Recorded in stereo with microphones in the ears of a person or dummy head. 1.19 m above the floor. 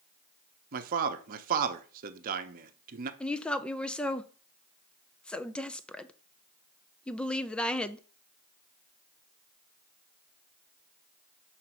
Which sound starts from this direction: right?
A man speaking, at 0.7 s.